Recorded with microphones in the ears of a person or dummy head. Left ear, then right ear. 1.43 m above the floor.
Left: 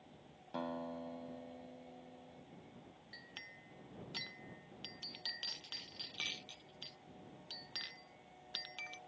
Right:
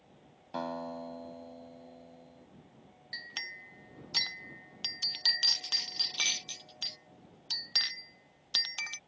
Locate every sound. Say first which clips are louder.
0.5 s a guitar: right 6 dB; 40° right (ahead or behind)
3.1 s a clink: right 13 dB; 55° right (ahead or behind)